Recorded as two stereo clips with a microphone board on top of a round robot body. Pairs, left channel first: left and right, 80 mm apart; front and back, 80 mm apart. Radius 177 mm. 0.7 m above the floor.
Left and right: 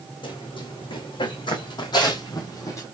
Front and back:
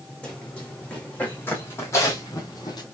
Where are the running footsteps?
80° left, 2.5 m; by 2.8 s 35° left, 1.8 m.